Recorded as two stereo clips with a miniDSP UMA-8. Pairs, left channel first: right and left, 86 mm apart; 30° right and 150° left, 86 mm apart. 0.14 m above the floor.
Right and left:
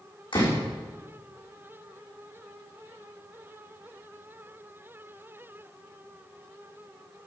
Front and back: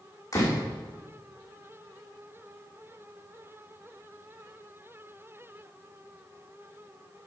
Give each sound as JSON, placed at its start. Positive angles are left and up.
{"t": 0.3, "sound": "a door slam", "azimuth_deg": -80, "distance_m": 6.0}